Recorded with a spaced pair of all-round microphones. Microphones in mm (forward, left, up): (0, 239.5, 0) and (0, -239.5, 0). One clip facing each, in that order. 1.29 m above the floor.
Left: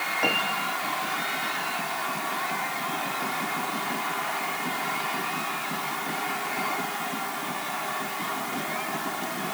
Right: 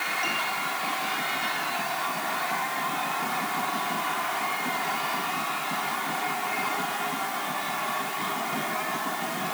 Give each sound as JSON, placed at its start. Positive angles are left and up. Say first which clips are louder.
{"t": 0.2, "sound": "a piano", "louder": "left 8 dB", "side_deg": 75}